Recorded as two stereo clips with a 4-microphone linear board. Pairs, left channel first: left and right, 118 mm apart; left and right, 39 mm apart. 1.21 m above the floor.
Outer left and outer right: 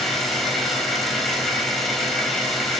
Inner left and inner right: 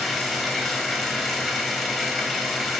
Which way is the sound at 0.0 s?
Centre (ahead or behind).